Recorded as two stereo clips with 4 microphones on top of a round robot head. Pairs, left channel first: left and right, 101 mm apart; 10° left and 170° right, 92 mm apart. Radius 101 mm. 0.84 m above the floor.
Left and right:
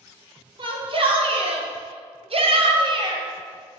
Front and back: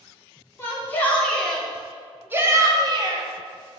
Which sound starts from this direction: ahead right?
A shout, at 0.6 s.